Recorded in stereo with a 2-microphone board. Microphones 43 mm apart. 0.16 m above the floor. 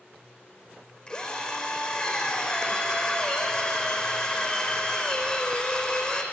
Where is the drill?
25° left (ahead or behind), 4.5 m.